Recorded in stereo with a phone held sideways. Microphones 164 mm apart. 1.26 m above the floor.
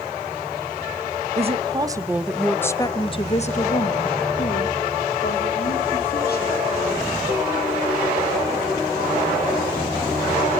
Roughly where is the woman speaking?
Right.